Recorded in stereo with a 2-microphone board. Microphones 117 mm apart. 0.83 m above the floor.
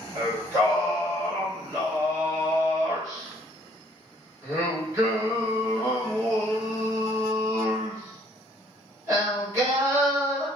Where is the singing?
25° right (ahead or behind), 1.8 m.